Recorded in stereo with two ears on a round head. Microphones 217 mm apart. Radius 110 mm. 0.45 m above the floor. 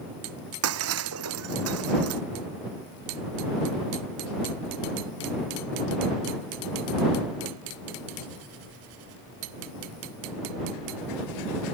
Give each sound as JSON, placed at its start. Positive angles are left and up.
{"t": 0.6, "sound": "breaking glass", "side_deg": -65}